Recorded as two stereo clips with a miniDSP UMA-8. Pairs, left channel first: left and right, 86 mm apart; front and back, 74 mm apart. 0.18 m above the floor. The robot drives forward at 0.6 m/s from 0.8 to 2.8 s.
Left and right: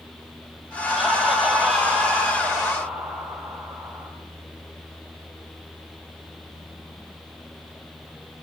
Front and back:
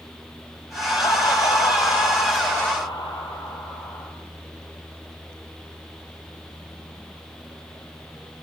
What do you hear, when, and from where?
0.9 s laughter: 5° right, 6 m